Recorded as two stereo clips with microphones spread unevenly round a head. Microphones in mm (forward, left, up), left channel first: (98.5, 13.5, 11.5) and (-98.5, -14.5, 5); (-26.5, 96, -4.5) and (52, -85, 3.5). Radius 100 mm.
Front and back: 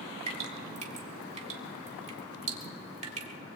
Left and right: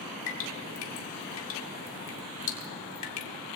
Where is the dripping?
130° left, 2 m.